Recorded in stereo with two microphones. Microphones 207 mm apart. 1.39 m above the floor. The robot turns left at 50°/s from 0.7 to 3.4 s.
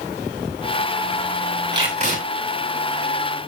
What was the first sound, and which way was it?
Tape being pulled, 20° right (ahead or behind).